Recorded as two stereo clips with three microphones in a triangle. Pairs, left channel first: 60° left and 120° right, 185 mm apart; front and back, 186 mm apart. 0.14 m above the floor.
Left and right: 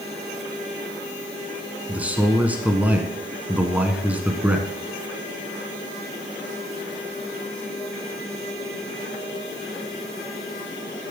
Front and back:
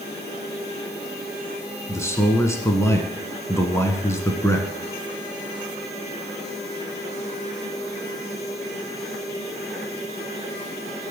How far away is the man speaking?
About 1.2 m.